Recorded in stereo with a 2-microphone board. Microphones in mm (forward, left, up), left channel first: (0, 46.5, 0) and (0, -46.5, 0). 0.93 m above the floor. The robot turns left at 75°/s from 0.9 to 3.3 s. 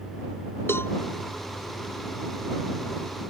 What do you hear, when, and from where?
0.7 s a cowbell: 25° left (ahead or behind)